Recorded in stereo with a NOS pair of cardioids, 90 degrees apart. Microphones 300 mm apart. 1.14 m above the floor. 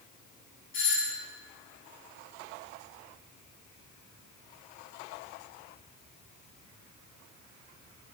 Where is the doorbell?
40° left, 3.5 m.